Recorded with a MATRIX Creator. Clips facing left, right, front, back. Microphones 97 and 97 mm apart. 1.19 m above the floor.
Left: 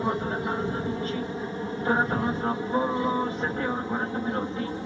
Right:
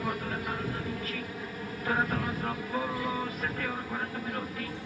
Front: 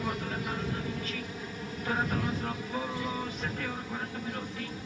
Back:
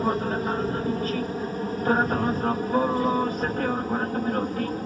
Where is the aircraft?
145° left; by 4.9 s 150° left.